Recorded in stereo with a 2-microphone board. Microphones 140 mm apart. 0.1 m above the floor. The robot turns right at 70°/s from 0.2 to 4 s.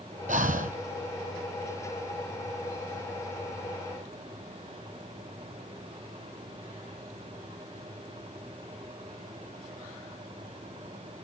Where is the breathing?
110° right, 0.7 m; by 0.8 s 75° right, 0.7 m.